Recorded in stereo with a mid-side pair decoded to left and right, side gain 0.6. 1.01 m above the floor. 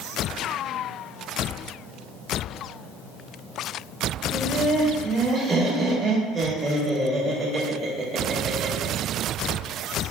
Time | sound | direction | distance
4.3 | laughter | 30° right | 1.6 m